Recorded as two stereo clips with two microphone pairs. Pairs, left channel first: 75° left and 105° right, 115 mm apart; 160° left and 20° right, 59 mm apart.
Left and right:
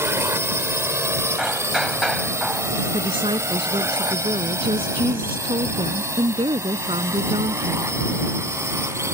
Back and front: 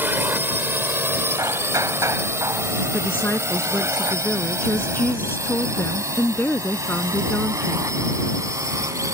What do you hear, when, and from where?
0.0 s a drone: 50° right; by 9.1 s 40° right
1.4 s hammering: 20° right
2.9 s a woman speaking: 145° right